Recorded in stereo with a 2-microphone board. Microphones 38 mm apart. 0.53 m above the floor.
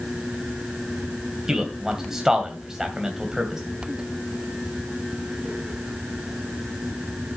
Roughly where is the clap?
No clap in this recording.